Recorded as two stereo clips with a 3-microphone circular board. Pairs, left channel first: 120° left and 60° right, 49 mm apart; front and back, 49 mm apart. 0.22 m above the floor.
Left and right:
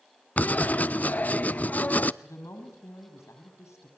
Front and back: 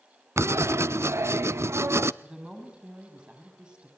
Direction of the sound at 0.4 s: 175° left.